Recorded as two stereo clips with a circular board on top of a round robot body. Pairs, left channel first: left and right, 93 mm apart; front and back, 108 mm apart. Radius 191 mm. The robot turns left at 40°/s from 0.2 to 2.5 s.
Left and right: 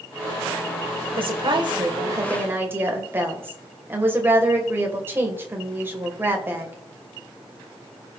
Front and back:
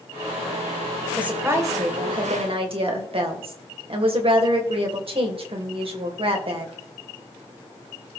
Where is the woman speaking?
100° right, 2.5 m; by 6.8 s 155° right, 2.5 m.